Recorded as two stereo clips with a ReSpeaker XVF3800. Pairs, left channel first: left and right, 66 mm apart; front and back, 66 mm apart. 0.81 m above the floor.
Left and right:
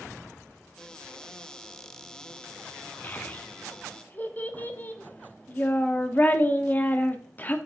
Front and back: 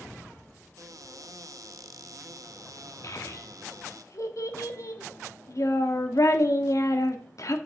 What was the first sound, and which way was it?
A cupboard door, 165° left.